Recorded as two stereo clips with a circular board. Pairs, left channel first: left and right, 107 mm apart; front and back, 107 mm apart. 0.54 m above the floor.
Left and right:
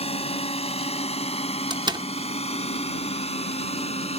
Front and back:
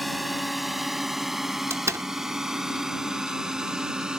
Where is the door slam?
120° right.